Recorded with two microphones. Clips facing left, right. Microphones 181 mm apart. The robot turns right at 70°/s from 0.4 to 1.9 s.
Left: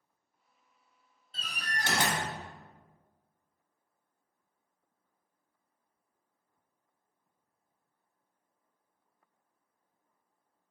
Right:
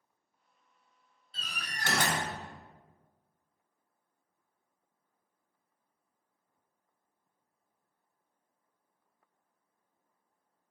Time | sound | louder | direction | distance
1.3 | a door slam | left 4 dB | 115° left | 0.9 m